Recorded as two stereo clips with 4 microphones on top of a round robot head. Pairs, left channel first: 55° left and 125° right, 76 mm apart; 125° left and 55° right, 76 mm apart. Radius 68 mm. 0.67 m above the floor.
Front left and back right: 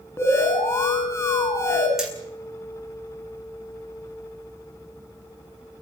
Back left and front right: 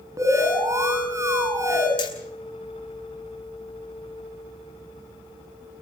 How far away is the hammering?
About 9 m.